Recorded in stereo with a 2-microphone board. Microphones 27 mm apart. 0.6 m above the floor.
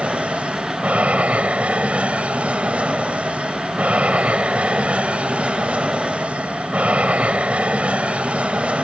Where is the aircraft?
55° right (ahead or behind).